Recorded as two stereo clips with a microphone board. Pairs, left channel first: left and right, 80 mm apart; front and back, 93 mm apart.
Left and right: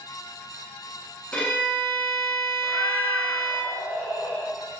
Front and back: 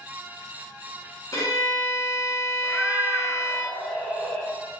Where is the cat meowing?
85° left, 0.5 m.